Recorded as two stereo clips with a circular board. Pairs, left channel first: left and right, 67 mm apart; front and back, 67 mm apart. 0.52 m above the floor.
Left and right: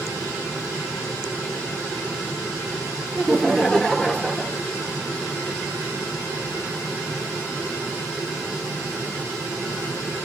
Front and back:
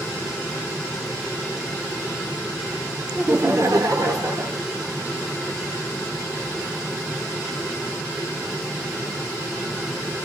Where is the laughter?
Straight behind, 0.7 m; by 4.6 s 170° left, 1.6 m.